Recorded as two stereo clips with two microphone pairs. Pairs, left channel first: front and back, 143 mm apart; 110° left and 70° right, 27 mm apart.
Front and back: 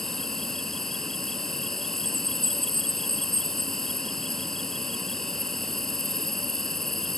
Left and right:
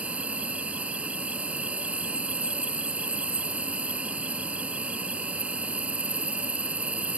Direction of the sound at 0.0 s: 85° right.